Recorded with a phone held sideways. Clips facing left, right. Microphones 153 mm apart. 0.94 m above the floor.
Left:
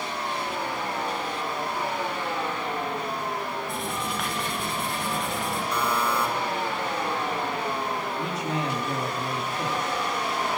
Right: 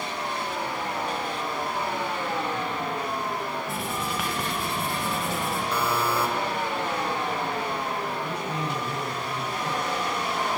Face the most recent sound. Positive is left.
turn(degrees=80)